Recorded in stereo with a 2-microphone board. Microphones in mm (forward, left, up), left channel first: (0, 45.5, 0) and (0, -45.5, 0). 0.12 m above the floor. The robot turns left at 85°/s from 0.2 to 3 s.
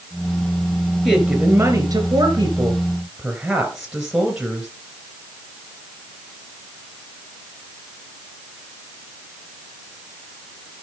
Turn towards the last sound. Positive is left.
turn(degrees=-170)